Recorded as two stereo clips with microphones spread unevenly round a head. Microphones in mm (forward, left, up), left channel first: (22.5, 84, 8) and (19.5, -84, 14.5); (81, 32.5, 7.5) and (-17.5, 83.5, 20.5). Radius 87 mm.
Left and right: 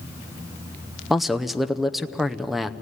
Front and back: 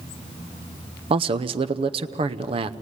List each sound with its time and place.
1.1 s a man speaking: straight behind, 0.6 m